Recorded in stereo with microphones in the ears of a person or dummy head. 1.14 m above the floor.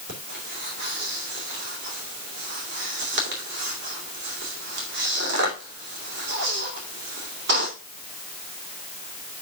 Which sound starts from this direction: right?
Breathing, at 0.1 s.